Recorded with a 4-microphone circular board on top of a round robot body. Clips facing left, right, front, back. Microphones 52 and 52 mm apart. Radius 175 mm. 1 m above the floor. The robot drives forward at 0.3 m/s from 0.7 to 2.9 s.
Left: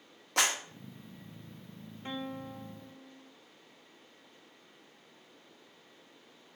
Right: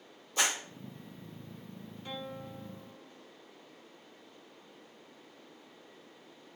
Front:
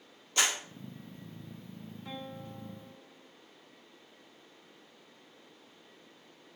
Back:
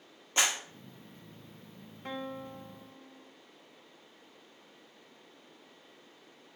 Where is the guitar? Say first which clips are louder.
Left 3 dB, back 5 dB; 150° left, 0.9 m; by 3.3 s 155° left, 1.1 m.